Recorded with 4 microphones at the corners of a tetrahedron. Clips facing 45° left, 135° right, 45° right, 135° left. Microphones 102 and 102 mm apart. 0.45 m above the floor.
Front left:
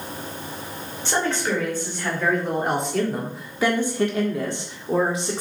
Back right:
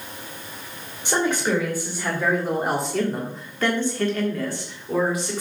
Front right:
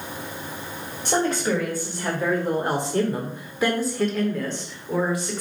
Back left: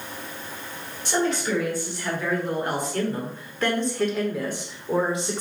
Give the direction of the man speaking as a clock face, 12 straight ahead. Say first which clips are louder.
Back right 2 dB, front right 2 dB; 2 o'clock.